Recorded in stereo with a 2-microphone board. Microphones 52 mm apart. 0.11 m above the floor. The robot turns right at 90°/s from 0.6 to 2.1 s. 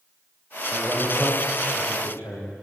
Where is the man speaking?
40° right, 8 m; by 2.5 s 85° left, 8 m.